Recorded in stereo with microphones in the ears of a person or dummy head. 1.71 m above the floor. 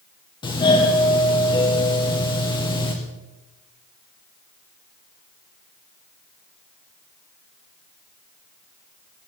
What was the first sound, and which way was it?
A doorbell, 25° left (ahead or behind).